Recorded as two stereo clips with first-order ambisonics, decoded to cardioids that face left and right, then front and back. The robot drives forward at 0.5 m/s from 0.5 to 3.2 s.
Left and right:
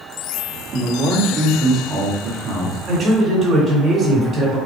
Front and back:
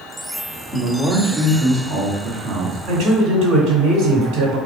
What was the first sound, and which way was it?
A man speaking, 85° right.